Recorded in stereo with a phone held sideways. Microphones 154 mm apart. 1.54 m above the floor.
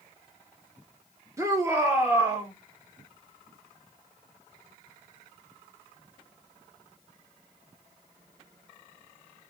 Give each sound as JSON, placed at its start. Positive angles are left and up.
{"t": 1.4, "sound": "a shout", "side_deg": -20, "distance_m": 1.4}